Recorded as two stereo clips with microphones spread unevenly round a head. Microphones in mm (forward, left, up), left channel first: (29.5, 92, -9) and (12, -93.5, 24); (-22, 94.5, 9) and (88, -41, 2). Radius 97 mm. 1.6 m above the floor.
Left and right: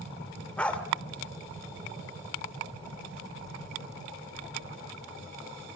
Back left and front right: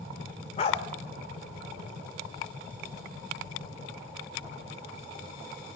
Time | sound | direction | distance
0.6 | a dog barking | 175° left | 1.7 m